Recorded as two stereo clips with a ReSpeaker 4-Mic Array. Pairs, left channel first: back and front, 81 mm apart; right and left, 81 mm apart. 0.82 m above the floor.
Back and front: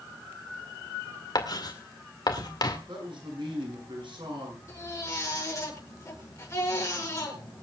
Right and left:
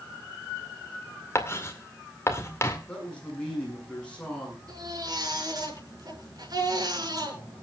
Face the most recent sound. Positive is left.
turn(degrees=125)